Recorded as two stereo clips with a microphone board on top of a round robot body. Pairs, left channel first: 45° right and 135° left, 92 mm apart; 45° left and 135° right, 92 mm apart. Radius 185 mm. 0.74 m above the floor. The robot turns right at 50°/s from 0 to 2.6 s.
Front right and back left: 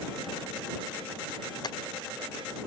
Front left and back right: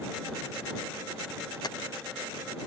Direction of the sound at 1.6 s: Straight ahead.